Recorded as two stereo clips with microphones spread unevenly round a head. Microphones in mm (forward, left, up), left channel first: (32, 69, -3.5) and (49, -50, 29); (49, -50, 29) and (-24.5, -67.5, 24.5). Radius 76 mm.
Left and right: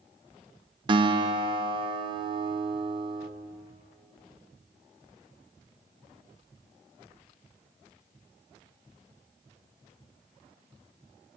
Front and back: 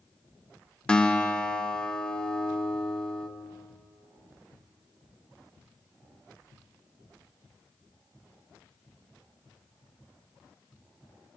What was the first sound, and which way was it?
A guitar, 60° right.